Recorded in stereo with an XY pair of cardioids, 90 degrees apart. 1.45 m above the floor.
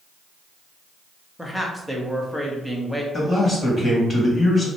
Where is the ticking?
I don't hear ticking.